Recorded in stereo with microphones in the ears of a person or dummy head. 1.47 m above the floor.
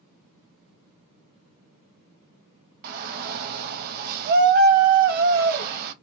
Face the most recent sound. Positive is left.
turn(degrees=-50)  # may be behind; listen again after turning